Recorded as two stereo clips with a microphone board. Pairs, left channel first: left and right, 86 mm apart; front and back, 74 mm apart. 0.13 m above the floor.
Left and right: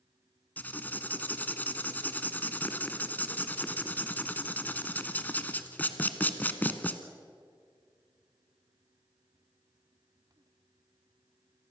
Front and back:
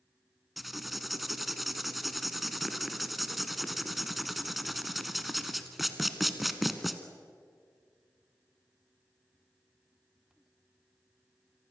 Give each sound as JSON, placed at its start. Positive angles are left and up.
{"t": 0.6, "sound": "writing", "azimuth_deg": 95, "distance_m": 1.3}